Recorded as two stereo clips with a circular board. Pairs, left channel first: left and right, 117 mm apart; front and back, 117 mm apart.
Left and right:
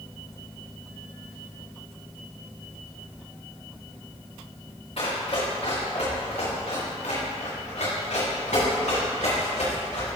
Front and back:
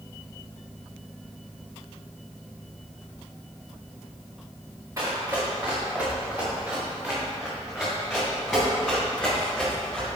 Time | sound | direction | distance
5.0 | running footsteps | 115° left | 3 m